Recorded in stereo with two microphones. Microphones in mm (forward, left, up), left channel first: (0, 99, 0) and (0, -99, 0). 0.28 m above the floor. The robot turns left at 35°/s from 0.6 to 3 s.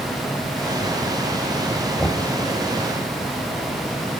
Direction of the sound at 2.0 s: 5° left (ahead or behind).